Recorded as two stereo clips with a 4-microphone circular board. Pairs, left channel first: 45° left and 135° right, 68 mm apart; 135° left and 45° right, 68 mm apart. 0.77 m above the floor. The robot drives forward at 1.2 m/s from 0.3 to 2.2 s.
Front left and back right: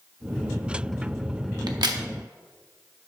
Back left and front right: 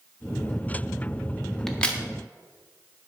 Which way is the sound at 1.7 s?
140° right.